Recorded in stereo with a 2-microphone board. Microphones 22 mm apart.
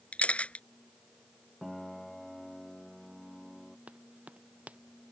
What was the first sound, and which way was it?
A camera shutter, 70° left (ahead or behind).